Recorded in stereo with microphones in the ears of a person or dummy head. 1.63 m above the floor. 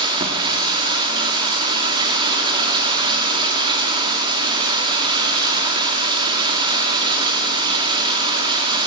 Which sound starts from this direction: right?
Running water, at 0.0 s.